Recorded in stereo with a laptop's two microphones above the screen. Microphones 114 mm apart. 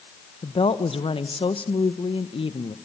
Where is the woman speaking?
50° left (ahead or behind), 0.9 m.